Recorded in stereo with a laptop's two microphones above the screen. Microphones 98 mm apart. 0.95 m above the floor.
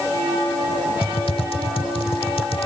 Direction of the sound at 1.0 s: 70° left (ahead or behind).